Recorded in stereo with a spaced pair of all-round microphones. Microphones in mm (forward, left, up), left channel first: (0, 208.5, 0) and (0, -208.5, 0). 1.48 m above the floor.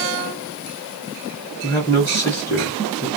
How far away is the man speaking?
About 1.4 m.